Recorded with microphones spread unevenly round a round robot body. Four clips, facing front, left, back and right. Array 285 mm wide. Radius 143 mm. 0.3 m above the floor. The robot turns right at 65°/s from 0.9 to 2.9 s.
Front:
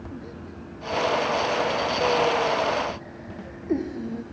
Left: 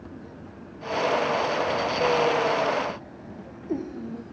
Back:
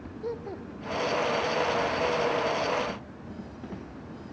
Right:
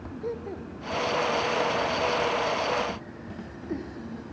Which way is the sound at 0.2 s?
120° right.